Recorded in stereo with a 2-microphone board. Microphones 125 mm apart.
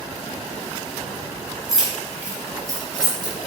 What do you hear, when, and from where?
1.7 s keys jangling: 5° right (ahead or behind), 0.9 m; by 3.3 s 35° right (ahead or behind), 1.2 m